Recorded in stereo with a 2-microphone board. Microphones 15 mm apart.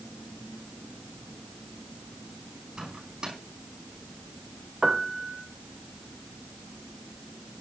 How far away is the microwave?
About 5.5 m.